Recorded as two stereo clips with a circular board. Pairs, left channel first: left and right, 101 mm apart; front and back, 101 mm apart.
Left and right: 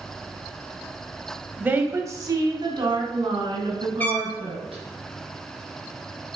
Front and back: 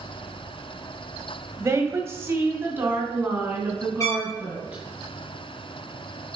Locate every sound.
1.6 s a woman speaking: 150° right, 1.3 m; by 4.8 s 105° right, 4 m
4.0 s a trumpet: 35° left, 1.6 m